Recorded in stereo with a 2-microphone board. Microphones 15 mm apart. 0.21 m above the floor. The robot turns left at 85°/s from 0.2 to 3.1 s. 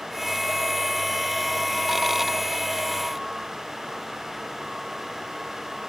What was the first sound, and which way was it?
Only background noise.